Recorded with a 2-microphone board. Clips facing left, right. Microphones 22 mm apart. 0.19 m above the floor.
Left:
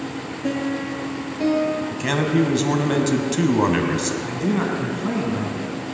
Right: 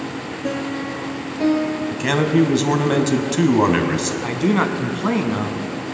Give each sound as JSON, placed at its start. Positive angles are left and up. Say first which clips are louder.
{"t": 0.4, "sound": "a piano", "louder": "left 1 dB", "side_deg": -5, "distance_m": 2.0}
{"t": 1.9, "sound": "a man speaking", "louder": "right 6 dB", "side_deg": -10, "distance_m": 1.0}
{"t": 4.2, "sound": "a man speaking", "louder": "right 4 dB", "side_deg": -40, "distance_m": 1.5}